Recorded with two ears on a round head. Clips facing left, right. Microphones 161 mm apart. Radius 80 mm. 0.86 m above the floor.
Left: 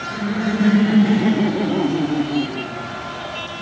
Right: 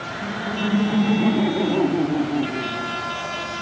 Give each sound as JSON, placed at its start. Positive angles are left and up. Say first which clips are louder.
{"t": 0.1, "sound": "laughter", "louder": "left 8 dB", "side_deg": 45, "distance_m": 0.8}